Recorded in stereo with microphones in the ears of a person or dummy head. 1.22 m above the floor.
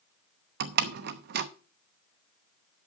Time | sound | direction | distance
0.6 | a door slam | 55° right (ahead or behind) | 0.8 m